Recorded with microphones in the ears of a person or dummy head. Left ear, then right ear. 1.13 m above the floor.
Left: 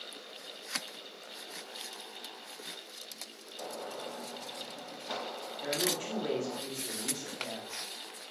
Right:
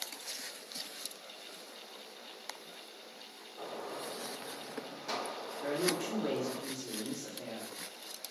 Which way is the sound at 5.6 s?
20° left (ahead or behind).